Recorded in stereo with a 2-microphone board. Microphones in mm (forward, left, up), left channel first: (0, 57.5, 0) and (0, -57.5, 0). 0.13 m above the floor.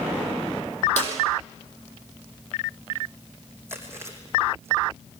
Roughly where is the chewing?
Right.